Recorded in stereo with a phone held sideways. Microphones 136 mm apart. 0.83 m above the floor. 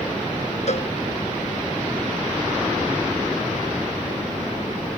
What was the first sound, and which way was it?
A cowbell, 55° left (ahead or behind).